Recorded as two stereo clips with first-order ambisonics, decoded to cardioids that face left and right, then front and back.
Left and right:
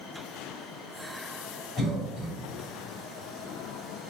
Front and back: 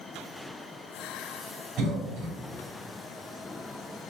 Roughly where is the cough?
Behind.